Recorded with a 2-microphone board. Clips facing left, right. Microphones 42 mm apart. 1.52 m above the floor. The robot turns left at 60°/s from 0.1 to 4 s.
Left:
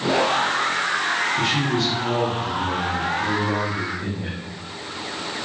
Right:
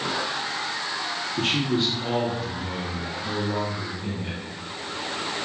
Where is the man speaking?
130° right, 1.3 m; by 4.4 s 70° left, 1.3 m.